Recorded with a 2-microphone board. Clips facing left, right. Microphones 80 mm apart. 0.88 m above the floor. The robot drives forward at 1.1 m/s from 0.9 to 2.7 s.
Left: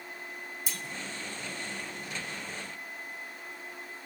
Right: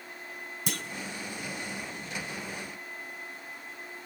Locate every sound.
0.7 s a clunk: 60° right (ahead or behind), 0.9 m